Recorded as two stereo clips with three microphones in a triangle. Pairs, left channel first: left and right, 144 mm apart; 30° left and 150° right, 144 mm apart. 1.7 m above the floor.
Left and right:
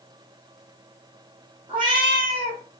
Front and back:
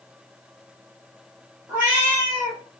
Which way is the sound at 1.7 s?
85° right.